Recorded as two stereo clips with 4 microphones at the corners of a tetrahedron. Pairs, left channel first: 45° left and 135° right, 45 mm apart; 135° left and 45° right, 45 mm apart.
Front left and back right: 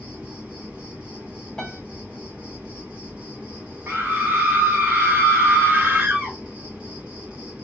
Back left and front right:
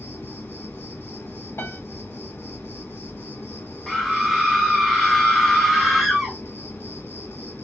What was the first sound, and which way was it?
An insect, 165° left.